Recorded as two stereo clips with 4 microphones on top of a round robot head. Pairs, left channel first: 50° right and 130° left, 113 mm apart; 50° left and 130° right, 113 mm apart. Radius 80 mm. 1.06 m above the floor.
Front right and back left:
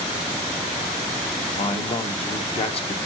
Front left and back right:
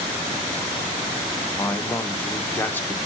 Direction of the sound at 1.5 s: 25° right.